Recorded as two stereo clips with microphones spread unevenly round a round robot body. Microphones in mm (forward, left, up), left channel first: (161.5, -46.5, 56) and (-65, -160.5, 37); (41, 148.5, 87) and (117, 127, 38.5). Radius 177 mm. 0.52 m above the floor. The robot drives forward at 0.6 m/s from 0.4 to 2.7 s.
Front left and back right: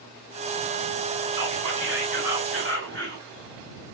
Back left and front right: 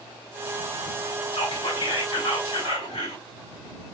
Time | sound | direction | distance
1.3 | whispering | 140° left | 3 m